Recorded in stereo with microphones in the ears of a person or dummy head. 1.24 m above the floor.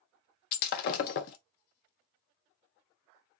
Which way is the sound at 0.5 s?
55° left (ahead or behind).